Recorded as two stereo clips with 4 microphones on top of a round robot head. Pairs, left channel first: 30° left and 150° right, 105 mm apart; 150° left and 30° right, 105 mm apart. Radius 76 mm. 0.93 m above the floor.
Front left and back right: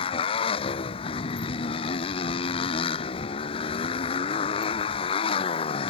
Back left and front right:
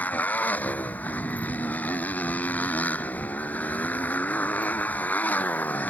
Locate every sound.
0.0 s a motorcycle: 70° left